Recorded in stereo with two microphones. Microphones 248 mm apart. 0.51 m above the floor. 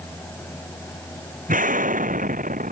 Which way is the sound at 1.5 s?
35° right (ahead or behind).